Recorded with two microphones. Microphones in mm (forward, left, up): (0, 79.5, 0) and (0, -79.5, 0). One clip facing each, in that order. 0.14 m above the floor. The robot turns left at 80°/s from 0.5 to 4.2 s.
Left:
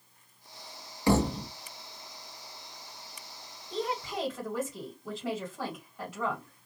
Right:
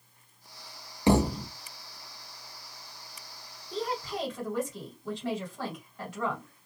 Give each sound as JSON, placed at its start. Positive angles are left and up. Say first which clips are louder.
{"t": 1.1, "sound": "a thud", "louder": "right 2 dB", "azimuth_deg": -155, "distance_m": 0.6}
{"t": 3.7, "sound": "a woman speaking", "louder": "even", "azimuth_deg": 45, "distance_m": 2.0}